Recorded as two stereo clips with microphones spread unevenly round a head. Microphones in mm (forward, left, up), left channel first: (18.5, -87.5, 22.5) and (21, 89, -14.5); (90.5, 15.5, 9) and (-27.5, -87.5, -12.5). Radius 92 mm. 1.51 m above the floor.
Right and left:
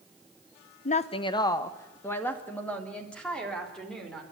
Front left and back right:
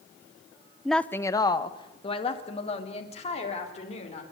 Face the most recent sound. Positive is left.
turn(degrees=-5)